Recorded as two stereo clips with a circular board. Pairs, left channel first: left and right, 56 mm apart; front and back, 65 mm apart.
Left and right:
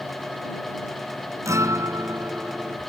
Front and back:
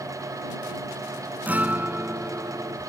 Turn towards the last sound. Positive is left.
turn(degrees=-115)